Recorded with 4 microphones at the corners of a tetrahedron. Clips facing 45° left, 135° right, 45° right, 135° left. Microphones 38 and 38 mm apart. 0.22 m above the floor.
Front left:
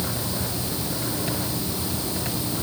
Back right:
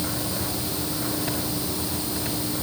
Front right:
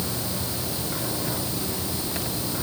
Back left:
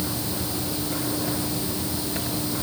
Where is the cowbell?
No cowbell in this recording.